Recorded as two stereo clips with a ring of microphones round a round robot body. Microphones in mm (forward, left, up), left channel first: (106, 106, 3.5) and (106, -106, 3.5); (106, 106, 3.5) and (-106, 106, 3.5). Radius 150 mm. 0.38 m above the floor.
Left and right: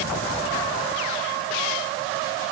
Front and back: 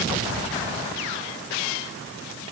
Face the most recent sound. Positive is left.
No sound to turn to.